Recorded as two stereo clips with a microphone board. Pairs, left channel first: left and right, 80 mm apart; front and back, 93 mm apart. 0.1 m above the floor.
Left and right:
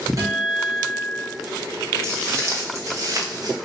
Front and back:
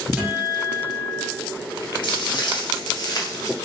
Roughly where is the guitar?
Right.